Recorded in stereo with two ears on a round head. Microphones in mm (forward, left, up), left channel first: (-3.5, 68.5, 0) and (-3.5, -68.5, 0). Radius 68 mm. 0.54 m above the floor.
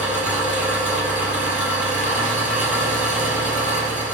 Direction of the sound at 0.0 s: 5° right (ahead or behind).